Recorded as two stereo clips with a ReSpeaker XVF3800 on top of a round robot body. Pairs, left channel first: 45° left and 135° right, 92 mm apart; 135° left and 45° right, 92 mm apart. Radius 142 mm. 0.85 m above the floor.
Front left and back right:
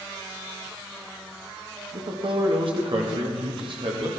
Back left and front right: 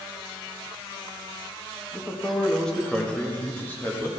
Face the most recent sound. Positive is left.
turn(degrees=-160)